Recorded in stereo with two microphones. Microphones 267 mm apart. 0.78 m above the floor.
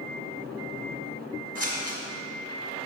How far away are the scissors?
About 1.6 m.